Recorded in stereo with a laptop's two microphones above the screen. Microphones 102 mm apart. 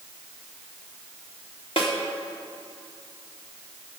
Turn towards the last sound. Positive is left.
turn(degrees=60)  # may be behind; listen again after turning